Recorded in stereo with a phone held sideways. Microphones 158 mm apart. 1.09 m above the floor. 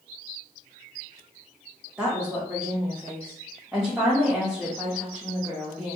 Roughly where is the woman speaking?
Centre.